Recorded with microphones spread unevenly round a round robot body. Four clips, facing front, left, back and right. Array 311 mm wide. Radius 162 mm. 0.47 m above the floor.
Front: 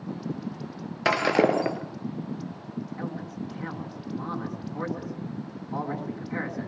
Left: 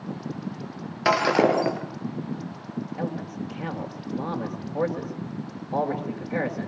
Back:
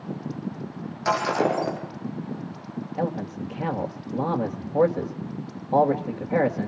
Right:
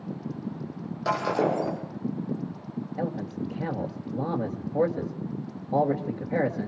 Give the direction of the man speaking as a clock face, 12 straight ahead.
6 o'clock.